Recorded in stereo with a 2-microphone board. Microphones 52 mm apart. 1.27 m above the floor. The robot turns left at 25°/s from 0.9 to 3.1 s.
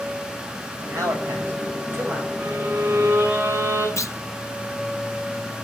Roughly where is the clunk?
Left.